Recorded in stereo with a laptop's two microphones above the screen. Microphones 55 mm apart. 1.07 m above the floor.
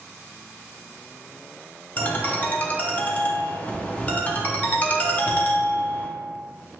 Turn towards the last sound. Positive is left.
turn(degrees=25)  # may be behind; listen again after turning